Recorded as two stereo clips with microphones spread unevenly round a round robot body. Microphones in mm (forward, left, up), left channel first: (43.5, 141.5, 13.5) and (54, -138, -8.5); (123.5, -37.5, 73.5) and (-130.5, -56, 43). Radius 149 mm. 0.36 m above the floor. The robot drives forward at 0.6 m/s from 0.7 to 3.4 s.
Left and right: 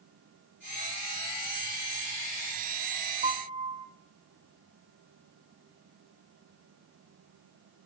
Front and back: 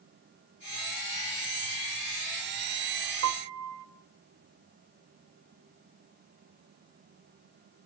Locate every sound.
3.2 s a piano: 155° right, 0.7 m; by 3.9 s 160° right, 0.8 m